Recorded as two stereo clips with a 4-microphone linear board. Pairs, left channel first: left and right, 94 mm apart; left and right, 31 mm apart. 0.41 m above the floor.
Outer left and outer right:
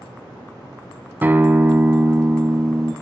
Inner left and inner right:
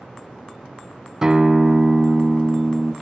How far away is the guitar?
About 0.7 m.